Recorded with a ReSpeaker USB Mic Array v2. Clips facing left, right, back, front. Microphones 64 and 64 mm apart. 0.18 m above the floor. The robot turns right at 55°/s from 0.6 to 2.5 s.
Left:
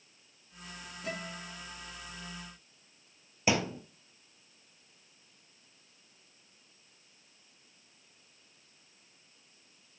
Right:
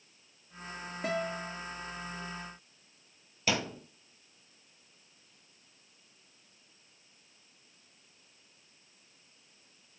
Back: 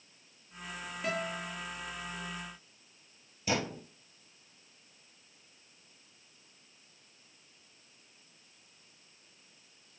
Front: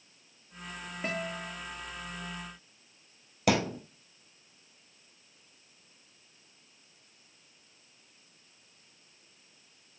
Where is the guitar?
65° right, 3.5 m; by 1.5 s 40° right, 3.5 m.